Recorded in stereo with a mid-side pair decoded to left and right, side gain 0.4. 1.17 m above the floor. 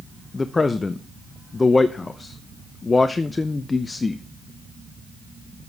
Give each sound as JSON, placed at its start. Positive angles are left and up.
{"t": 0.3, "sound": "a man speaking", "azimuth_deg": 25, "distance_m": 0.6}